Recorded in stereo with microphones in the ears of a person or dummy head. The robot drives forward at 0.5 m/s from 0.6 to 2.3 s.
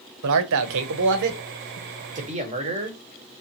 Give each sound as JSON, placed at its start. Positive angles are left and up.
{"t": 0.2, "sound": "a man speaking", "side_deg": -70, "distance_m": 0.8}